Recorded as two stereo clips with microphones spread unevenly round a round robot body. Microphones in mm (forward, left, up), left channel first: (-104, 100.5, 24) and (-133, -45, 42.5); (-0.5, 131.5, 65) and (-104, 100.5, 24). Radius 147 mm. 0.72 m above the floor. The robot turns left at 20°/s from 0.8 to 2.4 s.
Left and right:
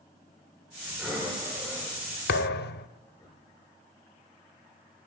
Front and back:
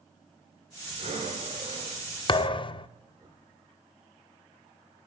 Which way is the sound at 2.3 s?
50° left.